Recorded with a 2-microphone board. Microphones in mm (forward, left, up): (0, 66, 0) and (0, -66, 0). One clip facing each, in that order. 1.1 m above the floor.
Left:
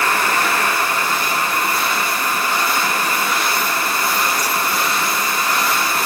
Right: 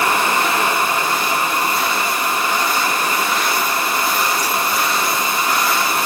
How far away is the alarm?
I don't hear an alarm.